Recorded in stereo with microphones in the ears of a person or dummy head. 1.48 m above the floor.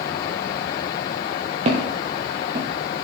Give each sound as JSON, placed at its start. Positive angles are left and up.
{"t": 1.6, "sound": "footsteps", "side_deg": -40, "distance_m": 1.9}